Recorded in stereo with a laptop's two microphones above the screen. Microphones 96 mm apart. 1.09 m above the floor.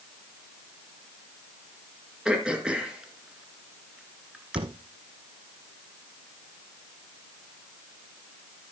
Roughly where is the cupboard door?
Right.